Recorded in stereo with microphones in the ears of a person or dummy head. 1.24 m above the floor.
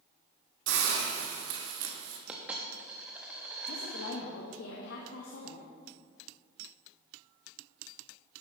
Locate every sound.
0.7 s a hiss: 80° right, 2 m
2.3 s a dropped coin: 5° right (ahead or behind), 0.8 m
3.7 s a woman speaking: 75° left (ahead or behind), 1.6 m